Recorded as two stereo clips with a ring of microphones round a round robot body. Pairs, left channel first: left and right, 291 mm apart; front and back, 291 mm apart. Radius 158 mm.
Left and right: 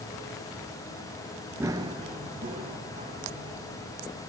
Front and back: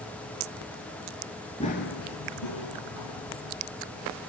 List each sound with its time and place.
1.6 s running footsteps: 25° right, 0.9 m; by 3.5 s 20° right, 3.5 m